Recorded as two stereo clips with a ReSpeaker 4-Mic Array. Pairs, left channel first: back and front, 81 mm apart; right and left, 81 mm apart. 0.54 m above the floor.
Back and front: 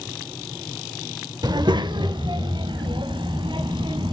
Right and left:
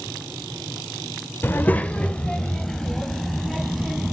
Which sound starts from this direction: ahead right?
A child speaking, at 1.4 s.